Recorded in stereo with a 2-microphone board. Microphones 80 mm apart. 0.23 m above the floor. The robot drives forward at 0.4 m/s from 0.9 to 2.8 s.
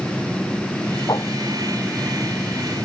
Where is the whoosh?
50° left (ahead or behind).